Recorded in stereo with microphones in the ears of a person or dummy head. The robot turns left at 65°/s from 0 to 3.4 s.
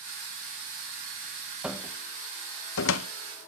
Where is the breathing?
No breathing in this recording.